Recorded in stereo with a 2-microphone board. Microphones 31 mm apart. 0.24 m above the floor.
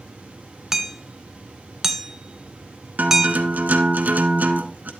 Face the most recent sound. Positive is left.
turn(degrees=-70)  # may be behind; listen again after turning